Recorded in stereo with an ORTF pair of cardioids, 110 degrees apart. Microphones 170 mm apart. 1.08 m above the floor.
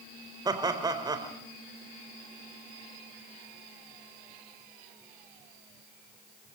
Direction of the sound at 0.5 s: 25° right.